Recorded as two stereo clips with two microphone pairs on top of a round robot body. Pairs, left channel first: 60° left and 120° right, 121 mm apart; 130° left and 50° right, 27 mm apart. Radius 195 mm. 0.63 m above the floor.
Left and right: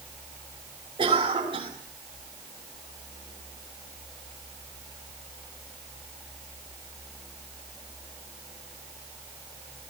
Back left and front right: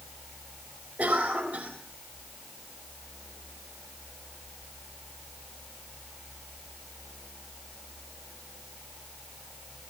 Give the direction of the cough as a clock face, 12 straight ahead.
2 o'clock.